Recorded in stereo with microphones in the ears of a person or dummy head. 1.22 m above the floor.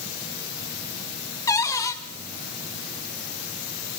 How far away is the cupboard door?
About 1.9 m.